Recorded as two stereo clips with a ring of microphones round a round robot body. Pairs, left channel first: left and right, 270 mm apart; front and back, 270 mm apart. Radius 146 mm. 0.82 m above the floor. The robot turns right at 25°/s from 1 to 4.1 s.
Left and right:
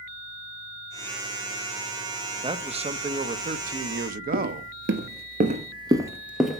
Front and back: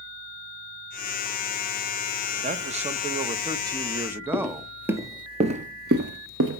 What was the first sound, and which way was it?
A man speaking, 145° right.